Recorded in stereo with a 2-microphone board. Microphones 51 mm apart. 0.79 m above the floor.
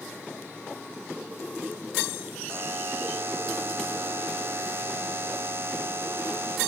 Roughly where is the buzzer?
Right.